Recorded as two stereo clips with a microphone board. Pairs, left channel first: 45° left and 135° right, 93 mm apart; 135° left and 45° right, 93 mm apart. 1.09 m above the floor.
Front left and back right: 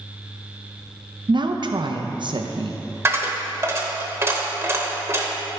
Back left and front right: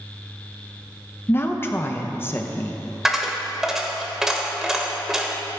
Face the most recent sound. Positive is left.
turn(degrees=-125)